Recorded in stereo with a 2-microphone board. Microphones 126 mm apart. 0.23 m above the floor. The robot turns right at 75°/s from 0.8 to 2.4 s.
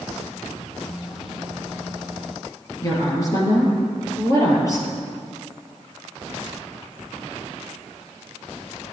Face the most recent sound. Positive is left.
turn(degrees=25)  # may be behind; listen again after turning